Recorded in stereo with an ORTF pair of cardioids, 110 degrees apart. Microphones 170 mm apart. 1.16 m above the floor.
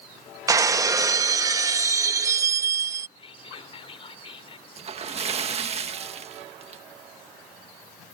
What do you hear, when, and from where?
0.5 s breaking glass: 20° right
3.2 s whispering: 35° left
4.8 s a splash: 40° right